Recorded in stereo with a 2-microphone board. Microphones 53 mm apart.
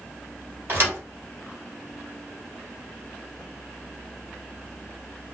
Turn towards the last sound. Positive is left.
turn(degrees=-40)  # may be behind; listen again after turning